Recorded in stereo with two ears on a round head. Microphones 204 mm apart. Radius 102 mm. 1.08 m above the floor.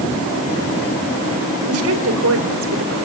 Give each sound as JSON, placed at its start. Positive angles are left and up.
{"t": 1.7, "sound": "a woman speaking", "side_deg": -70, "distance_m": 4.5}